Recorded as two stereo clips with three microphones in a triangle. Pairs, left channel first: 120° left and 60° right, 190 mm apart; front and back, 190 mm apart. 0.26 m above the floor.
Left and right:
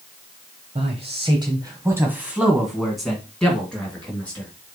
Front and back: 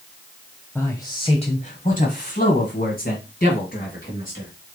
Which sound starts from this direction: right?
A man speaking, at 0.8 s.